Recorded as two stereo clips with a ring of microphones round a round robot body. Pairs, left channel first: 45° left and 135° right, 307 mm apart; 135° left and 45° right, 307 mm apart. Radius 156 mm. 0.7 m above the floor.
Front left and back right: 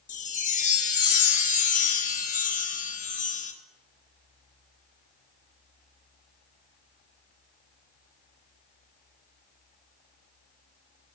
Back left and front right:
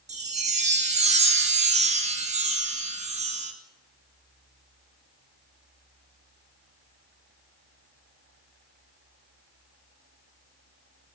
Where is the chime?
5° left, 0.6 m.